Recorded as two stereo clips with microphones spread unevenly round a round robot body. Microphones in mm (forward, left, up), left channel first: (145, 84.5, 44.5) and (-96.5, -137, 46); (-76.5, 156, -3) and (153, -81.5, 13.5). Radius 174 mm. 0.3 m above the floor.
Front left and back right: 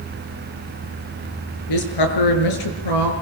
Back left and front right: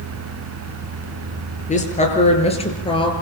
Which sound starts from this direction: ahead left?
A woman speaking, at 1.7 s.